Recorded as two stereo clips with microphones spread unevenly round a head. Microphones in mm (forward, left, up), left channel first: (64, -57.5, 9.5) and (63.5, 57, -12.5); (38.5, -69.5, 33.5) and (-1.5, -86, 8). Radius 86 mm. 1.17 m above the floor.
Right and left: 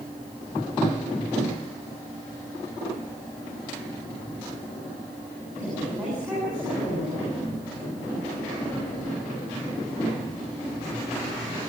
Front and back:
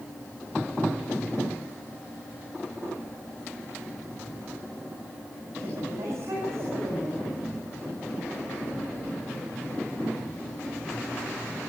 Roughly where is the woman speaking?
Behind.